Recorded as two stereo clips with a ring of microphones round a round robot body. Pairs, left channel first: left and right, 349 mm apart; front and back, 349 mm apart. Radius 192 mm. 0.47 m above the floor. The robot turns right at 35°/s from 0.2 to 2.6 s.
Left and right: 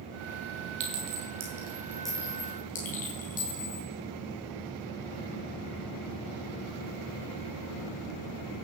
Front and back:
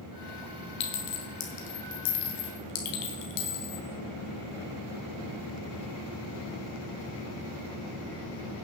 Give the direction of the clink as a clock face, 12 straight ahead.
1 o'clock.